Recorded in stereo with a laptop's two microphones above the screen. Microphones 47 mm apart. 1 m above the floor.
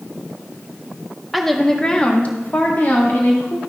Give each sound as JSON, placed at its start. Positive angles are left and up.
{"t": 1.3, "sound": "a woman speaking", "side_deg": 0, "distance_m": 0.9}